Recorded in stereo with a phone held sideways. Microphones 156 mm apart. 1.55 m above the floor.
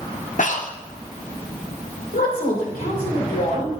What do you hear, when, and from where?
0.4 s breathing: 60° left (ahead or behind), 0.8 m
2.1 s a woman speaking: 75° left (ahead or behind), 5 m